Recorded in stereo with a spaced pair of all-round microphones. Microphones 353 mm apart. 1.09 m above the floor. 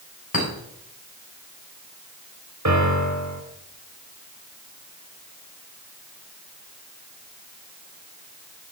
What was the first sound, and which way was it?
A clink, 70° left (ahead or behind).